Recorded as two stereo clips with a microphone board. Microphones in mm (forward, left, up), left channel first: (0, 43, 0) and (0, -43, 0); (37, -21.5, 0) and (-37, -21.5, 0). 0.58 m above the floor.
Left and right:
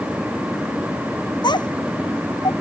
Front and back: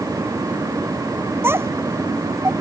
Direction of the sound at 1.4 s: 120° left.